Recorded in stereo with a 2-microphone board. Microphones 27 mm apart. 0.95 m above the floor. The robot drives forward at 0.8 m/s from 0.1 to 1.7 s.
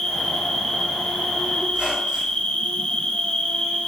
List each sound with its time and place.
0.0 s an insect: 15° left (ahead or behind), 1.7 m; by 3.9 s 45° left (ahead or behind), 0.6 m
1.7 s a squeak: 50° right (ahead or behind), 1.9 m; by 2.5 s 45° right (ahead or behind), 1.9 m